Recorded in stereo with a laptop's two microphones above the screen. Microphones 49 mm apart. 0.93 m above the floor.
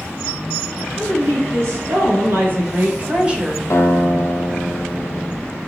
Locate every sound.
1.0 s a woman speaking: 70° right (ahead or behind), 2 m; by 3.6 s 10° right (ahead or behind), 0.9 m
3.7 s a guitar: 80° left, 0.9 m